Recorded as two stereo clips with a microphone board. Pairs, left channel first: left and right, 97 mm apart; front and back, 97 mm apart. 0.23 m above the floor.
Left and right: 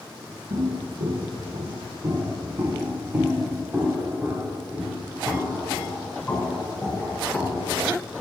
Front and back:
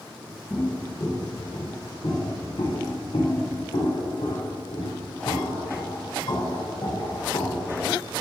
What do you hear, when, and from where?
0.5 s footsteps: 65° right, 2 m; by 7.9 s 15° left, 4 m